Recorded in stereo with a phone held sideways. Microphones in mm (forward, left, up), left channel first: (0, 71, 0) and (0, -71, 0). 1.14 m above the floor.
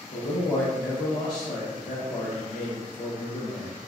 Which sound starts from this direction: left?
A man speaking, at 0.1 s.